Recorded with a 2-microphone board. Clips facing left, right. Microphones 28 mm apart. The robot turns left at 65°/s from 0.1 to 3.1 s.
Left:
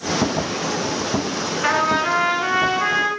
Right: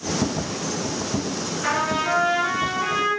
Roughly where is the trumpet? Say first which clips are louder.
Left 4 dB; behind left.